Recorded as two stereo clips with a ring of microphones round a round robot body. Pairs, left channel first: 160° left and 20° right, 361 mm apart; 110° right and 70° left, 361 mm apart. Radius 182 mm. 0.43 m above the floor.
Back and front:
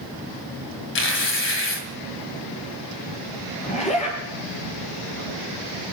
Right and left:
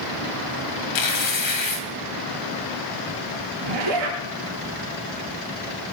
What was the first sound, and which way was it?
Tearing paper, 145° right.